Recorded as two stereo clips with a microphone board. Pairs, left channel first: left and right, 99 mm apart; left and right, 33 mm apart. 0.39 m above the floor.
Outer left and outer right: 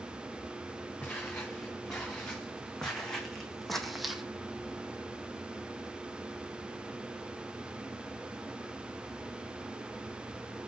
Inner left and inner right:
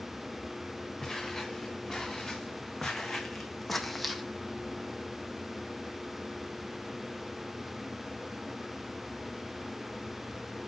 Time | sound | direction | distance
1.0 | footsteps | 10° left (ahead or behind) | 3.5 m